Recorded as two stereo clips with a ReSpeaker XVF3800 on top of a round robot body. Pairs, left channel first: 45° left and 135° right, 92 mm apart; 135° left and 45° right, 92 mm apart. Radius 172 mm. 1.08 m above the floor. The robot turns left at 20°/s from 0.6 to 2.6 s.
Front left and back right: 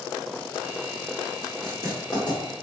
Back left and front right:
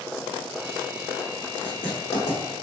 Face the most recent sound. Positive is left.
turn(degrees=80)